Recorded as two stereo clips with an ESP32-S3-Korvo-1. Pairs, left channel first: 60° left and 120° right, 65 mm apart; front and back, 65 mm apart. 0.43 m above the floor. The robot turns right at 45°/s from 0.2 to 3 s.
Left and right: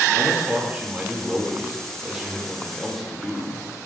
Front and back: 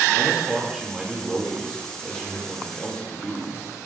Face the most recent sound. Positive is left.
turn(degrees=-20)